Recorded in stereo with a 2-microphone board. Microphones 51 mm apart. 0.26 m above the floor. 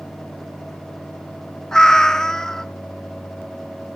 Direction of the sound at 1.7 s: 10° left (ahead or behind).